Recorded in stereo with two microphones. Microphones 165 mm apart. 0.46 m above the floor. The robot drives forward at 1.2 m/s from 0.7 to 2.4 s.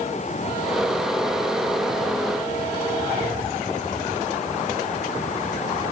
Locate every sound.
Only background noise.